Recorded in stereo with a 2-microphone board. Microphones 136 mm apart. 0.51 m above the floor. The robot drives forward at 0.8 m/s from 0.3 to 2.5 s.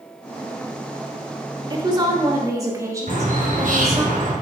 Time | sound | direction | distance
1.7 | a woman speaking | 35° right (ahead or behind) | 1.3 m
3.1 | a bird | 85° right | 3 m